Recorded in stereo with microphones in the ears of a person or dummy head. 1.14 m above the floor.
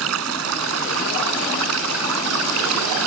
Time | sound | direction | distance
0.0 | running water | 75° right (ahead or behind) | ?